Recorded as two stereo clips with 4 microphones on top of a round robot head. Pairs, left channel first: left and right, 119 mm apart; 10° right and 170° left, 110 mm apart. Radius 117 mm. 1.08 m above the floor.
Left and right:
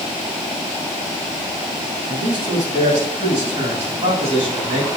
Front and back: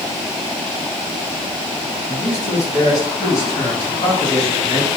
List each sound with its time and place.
2.1 s a man speaking: 75° right, 5 m; by 4.9 s 60° right, 7.5 m